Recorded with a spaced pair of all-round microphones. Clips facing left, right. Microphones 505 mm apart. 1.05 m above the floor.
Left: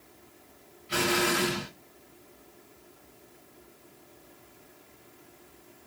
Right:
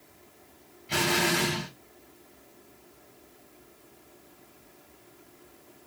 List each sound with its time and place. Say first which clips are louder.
0.9 s an explosion: even; 80° right, 1.9 m